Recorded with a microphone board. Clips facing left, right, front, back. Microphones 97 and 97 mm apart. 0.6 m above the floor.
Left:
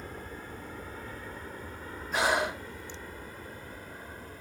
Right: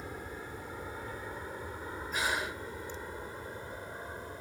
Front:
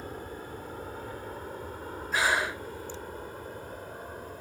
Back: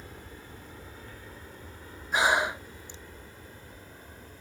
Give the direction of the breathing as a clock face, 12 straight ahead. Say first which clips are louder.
Left 7 dB, back 3 dB; 8 o'clock.